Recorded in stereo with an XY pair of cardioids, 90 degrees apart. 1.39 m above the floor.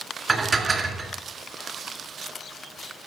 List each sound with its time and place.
0.3 s dishes clattering: 40° right, 2.5 m